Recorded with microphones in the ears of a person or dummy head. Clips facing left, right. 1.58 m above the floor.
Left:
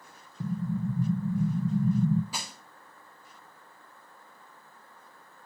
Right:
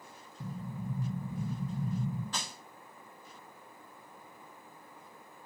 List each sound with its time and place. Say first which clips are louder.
0.4 s an explosion: left 10 dB; 65° left (ahead or behind), 1.0 m
2.3 s crushing: left 1 dB; 10° left (ahead or behind), 0.6 m